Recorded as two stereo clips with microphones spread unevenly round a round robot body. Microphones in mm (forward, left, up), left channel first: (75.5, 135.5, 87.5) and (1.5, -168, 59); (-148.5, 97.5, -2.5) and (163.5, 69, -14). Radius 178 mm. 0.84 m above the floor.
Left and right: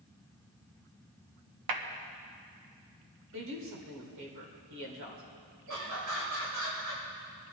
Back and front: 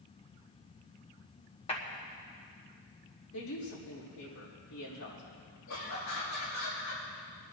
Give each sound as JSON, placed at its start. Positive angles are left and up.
{"t": 1.7, "sound": "a clap", "azimuth_deg": -110, "distance_m": 1.3}
{"t": 3.3, "sound": "a woman speaking", "azimuth_deg": -135, "distance_m": 4.0}
{"t": 5.7, "sound": "laughter", "azimuth_deg": -140, "distance_m": 5.0}